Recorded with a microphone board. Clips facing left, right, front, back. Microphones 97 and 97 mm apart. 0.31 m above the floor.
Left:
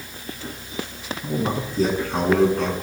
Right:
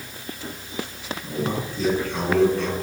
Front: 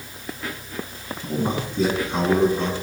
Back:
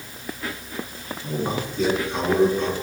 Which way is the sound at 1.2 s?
45° left.